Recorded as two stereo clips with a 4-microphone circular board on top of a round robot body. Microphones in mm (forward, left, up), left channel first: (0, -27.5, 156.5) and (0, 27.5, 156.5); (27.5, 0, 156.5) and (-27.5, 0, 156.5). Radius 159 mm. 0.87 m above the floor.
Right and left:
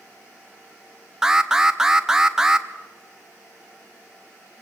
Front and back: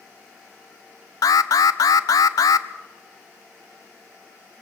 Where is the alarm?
10° left, 0.7 m.